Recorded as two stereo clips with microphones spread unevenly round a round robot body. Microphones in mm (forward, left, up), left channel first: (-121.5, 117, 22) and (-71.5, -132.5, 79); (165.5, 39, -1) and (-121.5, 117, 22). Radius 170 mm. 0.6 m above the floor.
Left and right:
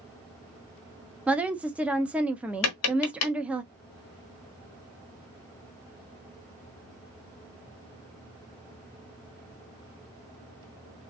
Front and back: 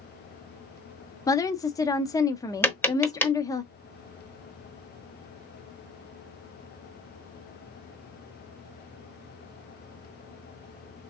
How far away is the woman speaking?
About 0.6 m.